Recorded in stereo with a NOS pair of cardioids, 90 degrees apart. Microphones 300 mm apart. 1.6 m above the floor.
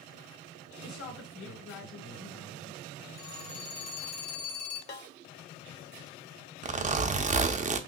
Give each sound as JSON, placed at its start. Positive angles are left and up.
{"t": 0.8, "sound": "a woman speaking", "azimuth_deg": 50, "distance_m": 2.5}
{"t": 3.2, "sound": "a phone ringing", "azimuth_deg": 60, "distance_m": 1.8}
{"t": 4.9, "sound": "a snare drum", "azimuth_deg": 35, "distance_m": 1.0}
{"t": 6.6, "sound": "a zipper", "azimuth_deg": -25, "distance_m": 0.5}